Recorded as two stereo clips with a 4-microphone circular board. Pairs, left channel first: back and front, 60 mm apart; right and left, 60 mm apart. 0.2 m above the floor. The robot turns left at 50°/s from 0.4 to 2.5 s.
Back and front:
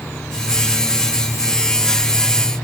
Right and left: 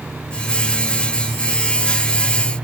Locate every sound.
Only background noise.